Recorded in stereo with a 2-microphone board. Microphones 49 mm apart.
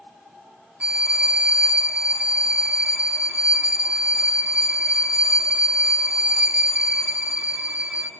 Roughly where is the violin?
Right.